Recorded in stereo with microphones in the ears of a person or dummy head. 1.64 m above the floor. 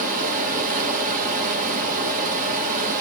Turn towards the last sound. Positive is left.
turn(degrees=-45)  # may be behind; listen again after turning